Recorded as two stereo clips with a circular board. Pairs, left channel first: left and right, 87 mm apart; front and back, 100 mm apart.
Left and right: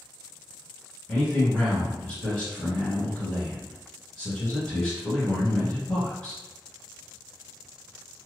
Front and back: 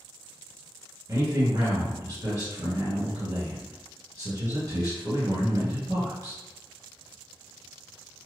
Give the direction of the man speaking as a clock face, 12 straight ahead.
7 o'clock.